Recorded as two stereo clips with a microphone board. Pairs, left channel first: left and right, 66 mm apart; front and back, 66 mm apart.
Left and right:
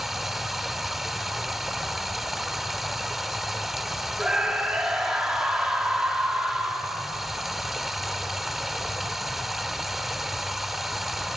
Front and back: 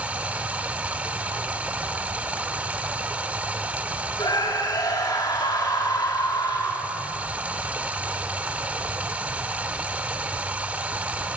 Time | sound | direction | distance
0.0 | running water | 175° right | 1.2 m
4.2 | a scream | 10° right | 4.5 m